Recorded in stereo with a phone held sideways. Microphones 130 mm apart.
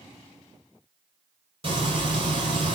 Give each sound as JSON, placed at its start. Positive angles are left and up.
{"t": 1.6, "sound": "frying", "side_deg": -45, "distance_m": 7.0}